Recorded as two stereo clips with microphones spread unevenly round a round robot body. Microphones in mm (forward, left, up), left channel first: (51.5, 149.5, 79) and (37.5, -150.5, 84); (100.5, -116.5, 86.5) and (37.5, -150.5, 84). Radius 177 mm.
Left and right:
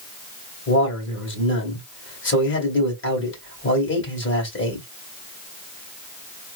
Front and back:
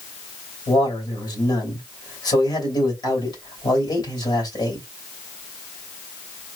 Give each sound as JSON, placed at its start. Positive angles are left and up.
{"t": 0.7, "sound": "a man speaking", "azimuth_deg": 40, "distance_m": 2.5}